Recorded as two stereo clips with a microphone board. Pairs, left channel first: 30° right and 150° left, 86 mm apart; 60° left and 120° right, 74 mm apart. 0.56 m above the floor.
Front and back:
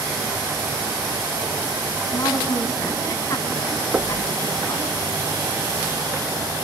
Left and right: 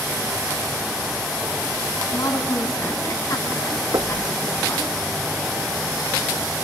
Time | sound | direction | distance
2.1 | a woman speaking | 20° left | 5 m
3.9 | knocking | 145° right | 0.9 m